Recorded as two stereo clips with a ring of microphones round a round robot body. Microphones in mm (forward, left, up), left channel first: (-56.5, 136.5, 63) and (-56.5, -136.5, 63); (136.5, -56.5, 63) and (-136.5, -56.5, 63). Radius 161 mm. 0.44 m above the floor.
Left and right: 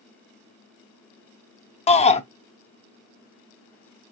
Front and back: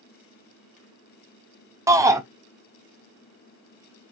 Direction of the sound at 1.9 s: 115° left.